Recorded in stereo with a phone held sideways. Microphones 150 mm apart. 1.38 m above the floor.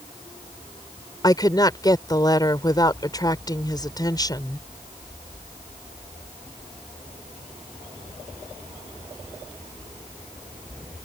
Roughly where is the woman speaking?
Left.